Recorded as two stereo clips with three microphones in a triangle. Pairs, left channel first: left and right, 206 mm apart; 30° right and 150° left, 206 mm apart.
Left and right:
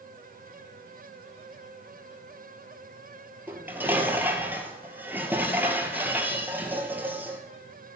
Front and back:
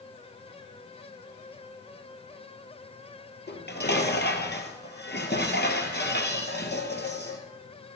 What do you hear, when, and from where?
3.5 s dishes clattering: 10° right, 1.7 m